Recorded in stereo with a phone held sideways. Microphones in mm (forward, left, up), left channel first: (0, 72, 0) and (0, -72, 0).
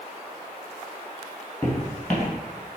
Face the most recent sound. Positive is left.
turn(degrees=5)  # may be behind; listen again after turning